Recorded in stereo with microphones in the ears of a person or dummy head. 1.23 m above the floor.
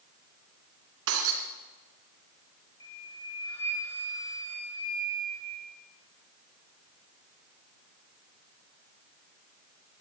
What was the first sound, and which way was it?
Breaking glass, 70° right (ahead or behind).